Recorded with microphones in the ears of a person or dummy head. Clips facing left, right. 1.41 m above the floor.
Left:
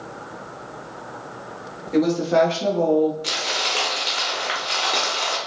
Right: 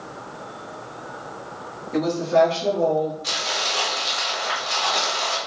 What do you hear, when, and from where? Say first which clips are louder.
1.9 s a woman speaking: left 1 dB; 30° left (ahead or behind), 1.1 m; by 3.1 s 45° left (ahead or behind), 1.0 m
3.2 s crumpling: left 1 dB; 45° left (ahead or behind), 1.1 m